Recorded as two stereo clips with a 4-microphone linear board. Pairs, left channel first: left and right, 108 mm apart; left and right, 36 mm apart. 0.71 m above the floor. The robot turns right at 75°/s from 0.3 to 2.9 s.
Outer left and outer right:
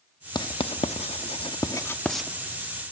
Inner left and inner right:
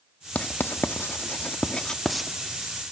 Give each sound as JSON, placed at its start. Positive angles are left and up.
{"t": 0.3, "sound": "writing", "side_deg": 40, "distance_m": 0.5}